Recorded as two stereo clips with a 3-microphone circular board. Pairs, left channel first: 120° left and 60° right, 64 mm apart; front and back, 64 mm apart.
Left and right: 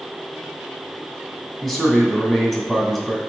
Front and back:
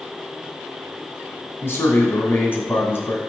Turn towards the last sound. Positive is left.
turn(degrees=35)